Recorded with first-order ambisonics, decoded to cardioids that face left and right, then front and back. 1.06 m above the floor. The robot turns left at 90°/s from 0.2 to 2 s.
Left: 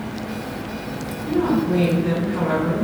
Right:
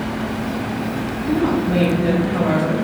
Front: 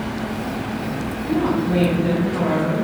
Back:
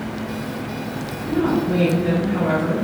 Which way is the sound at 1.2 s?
5° right.